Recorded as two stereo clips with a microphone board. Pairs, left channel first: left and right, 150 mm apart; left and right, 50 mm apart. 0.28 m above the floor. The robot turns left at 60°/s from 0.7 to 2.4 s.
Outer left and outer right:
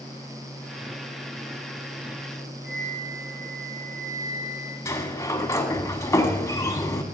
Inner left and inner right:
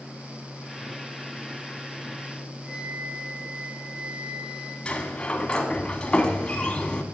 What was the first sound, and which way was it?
A flute, 15° right (ahead or behind).